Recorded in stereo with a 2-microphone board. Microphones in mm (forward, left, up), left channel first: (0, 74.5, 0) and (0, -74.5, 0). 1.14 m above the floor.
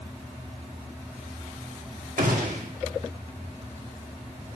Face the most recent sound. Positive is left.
turn(degrees=-75)  # may be behind; listen again after turning